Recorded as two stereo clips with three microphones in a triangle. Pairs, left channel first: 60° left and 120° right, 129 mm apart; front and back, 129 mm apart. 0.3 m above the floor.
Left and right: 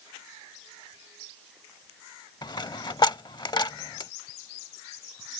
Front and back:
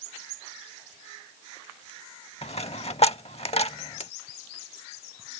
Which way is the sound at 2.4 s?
15° left.